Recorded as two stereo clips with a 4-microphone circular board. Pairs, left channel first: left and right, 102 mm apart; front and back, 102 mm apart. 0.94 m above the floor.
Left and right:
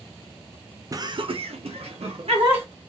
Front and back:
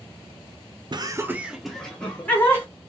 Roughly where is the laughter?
Behind right.